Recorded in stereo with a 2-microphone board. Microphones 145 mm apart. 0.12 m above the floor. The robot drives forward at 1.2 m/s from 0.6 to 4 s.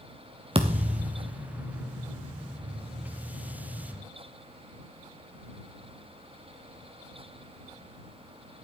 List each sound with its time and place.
0.6 s a thud: 40° right (ahead or behind), 1.7 m; by 1.3 s 70° right (ahead or behind), 1.2 m